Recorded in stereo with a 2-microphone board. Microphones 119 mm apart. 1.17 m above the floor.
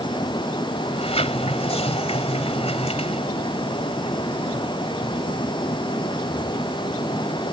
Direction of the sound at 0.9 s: 65° left (ahead or behind).